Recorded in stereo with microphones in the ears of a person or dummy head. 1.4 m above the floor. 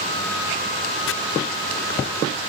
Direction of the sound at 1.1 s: 65° left (ahead or behind).